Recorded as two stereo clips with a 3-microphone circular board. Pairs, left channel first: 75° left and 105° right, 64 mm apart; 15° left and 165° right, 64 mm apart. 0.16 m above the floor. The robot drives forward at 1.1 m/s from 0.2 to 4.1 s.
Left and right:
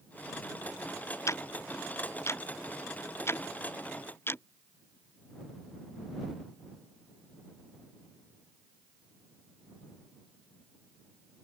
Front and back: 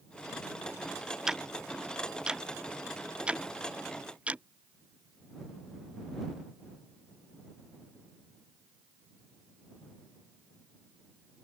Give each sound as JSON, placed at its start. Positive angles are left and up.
{"t": 1.3, "sound": "ticking", "azimuth_deg": 110}